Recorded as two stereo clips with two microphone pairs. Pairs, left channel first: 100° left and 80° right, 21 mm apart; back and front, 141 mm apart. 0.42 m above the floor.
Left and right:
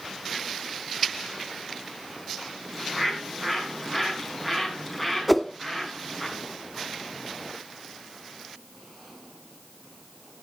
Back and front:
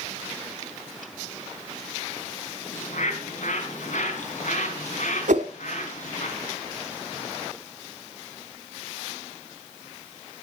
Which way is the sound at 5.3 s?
15° left.